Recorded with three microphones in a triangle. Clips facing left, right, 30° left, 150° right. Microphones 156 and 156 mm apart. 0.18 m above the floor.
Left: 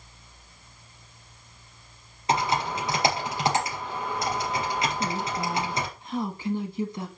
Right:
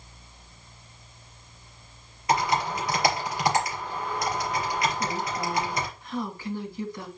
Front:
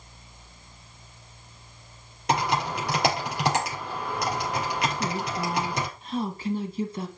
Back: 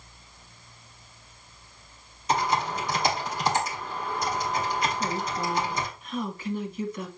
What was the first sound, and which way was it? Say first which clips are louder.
Typing on a keyboard: right 1 dB, even; 25° left.